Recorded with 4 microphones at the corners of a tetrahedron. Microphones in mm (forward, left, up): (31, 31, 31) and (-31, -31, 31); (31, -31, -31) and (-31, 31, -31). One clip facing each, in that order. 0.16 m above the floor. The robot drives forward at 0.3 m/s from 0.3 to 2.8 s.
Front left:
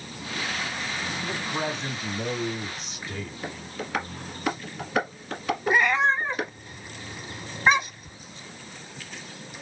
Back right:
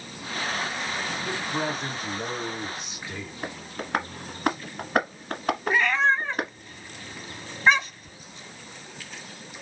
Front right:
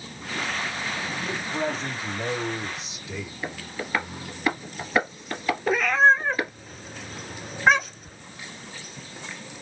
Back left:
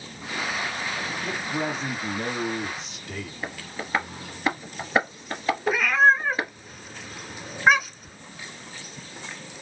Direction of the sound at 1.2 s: 140° left.